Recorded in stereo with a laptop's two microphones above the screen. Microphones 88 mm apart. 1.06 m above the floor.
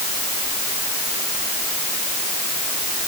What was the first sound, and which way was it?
Only background noise.